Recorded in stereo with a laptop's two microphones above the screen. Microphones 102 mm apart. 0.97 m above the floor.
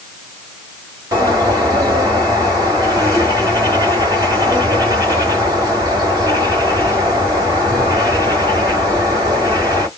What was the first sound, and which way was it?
A bird, 40° right (ahead or behind).